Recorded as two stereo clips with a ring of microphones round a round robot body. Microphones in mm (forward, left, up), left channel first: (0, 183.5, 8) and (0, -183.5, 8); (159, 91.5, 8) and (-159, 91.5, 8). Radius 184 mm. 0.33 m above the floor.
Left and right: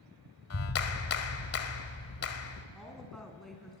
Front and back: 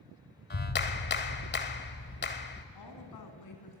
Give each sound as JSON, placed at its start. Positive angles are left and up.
{"t": 0.5, "sound": "a clap", "azimuth_deg": 50, "distance_m": 1.4}
{"t": 2.8, "sound": "a woman speaking", "azimuth_deg": 0, "distance_m": 3.5}